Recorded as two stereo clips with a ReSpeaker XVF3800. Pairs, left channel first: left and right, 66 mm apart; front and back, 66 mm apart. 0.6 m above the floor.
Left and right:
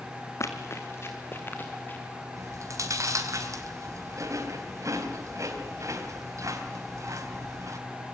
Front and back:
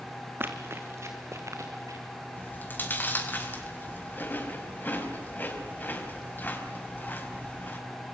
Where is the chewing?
55° right, 4 m.